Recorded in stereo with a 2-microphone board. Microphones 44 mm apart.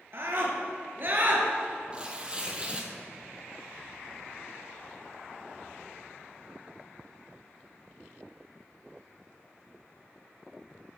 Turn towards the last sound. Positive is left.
turn(degrees=-20)  # may be behind; listen again after turning